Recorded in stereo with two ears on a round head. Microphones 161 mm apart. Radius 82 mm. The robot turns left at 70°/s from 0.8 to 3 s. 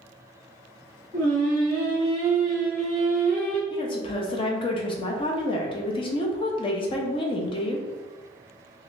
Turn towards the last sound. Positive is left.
turn(degrees=30)  # may be behind; listen again after turning